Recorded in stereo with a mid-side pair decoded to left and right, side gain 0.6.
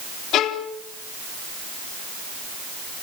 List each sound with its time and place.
0.3 s a violin: 60° left, 2.5 m